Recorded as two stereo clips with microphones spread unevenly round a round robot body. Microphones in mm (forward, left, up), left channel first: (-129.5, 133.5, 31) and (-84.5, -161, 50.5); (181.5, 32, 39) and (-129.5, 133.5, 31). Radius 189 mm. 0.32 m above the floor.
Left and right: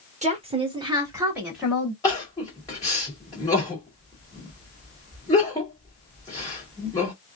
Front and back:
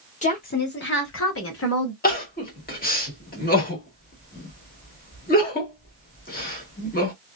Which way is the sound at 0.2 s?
45° right.